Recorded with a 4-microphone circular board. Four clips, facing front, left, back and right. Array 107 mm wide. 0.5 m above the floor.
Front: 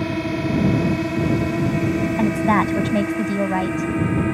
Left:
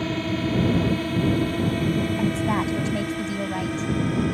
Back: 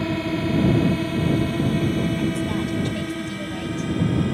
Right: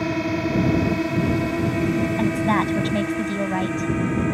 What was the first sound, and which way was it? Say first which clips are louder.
A drone: right 3 dB, front 1 dB; 75° right.